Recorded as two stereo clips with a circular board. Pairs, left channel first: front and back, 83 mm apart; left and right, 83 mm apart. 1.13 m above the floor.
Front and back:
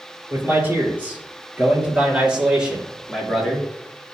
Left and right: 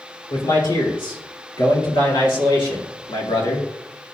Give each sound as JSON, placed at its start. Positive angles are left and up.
{"t": 0.3, "sound": "a man speaking", "azimuth_deg": 115, "distance_m": 3.5}